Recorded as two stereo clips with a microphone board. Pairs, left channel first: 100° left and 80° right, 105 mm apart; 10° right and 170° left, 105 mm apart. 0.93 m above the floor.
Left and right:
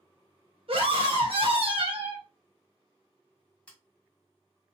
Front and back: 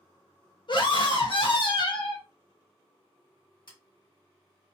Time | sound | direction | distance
0.7 | a scream | 50° right | 1.1 m
3.7 | scissors | 25° left | 1.2 m